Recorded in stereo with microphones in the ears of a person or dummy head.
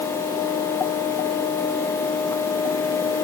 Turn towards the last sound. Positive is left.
No sound to turn to.